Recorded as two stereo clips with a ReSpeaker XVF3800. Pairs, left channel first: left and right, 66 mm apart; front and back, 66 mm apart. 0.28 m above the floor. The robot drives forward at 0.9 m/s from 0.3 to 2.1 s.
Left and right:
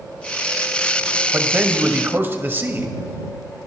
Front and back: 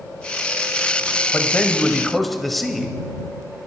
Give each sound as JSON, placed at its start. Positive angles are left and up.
{"t": 1.3, "sound": "a man speaking", "azimuth_deg": -45, "distance_m": 1.5}